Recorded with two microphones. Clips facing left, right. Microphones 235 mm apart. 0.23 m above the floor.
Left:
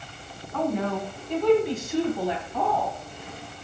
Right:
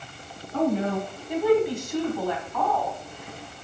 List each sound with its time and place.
0.5 s a woman speaking: 30° right (ahead or behind), 2 m; by 2.9 s 35° left (ahead or behind), 2 m